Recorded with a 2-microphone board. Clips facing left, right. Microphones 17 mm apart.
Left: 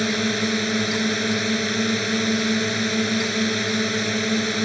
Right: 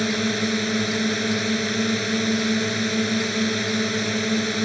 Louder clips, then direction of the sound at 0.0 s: Left 1 dB; 5° left (ahead or behind).